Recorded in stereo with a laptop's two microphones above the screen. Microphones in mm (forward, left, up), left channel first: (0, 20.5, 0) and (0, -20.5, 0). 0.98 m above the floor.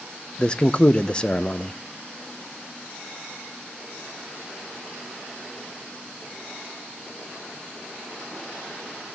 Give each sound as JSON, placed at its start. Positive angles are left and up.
{"t": 0.4, "sound": "a man speaking", "side_deg": 20, "distance_m": 0.6}